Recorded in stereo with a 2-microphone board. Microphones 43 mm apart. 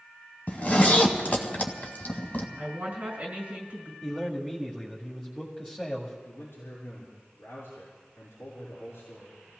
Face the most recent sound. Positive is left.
turn(degrees=80)